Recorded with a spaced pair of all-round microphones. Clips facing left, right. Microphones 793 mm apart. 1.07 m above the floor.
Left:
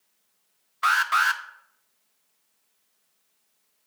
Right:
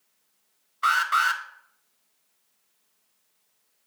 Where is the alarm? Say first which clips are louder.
Left 1 dB; 35° left (ahead or behind), 0.6 m.